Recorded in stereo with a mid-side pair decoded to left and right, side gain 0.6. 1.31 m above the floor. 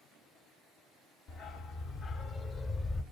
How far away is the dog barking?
About 3 m.